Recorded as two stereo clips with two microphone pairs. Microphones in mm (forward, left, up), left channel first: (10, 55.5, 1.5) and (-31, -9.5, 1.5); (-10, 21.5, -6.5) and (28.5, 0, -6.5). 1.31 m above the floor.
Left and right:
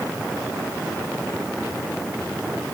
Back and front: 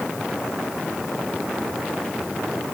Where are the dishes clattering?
No dishes clattering in this recording.